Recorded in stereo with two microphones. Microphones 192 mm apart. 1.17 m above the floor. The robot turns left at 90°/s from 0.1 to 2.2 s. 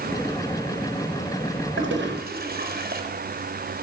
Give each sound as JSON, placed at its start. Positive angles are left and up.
{"t": 1.8, "sound": "a toilet flushing", "side_deg": -85, "distance_m": 4.5}